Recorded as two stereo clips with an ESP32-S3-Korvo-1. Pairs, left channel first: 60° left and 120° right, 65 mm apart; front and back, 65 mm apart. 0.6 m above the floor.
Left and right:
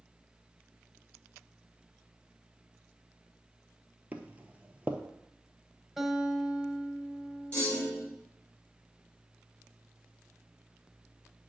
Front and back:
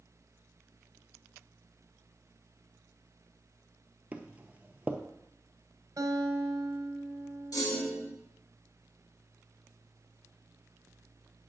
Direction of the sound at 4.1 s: 150° right.